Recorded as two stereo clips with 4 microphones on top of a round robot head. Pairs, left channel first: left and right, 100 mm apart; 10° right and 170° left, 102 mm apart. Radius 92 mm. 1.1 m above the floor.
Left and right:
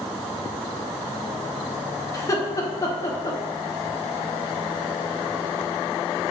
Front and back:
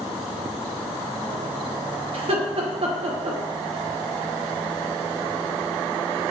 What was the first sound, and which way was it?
Laughter, 145° left.